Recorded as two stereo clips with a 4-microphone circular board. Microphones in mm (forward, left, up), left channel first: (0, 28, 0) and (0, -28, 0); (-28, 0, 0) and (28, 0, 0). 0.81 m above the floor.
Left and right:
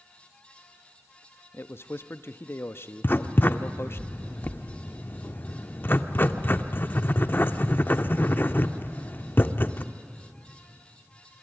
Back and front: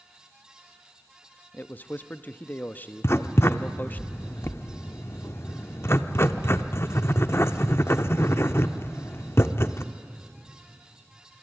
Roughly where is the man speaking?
Behind left.